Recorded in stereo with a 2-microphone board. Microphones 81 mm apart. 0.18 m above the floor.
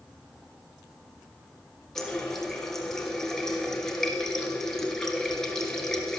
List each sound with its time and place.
1.9 s a running tap: 5° left (ahead or behind), 1.9 m